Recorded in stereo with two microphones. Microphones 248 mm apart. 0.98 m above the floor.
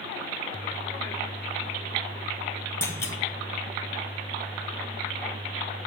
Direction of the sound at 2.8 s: 10° left (ahead or behind).